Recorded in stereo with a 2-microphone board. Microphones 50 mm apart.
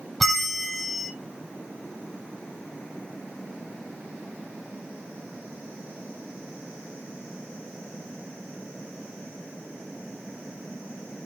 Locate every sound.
0.2 s a bell: centre (ahead or behind), 1.2 m